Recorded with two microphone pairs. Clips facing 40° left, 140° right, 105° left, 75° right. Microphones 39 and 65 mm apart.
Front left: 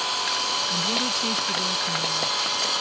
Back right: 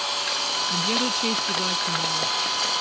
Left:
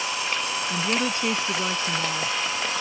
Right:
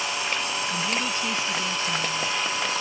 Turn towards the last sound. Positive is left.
turn(degrees=150)